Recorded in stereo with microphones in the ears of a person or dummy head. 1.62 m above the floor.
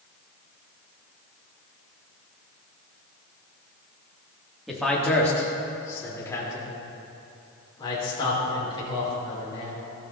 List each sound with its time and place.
4.7 s a man speaking: centre (ahead or behind), 2.0 m; by 9.8 s 30° left (ahead or behind), 5.5 m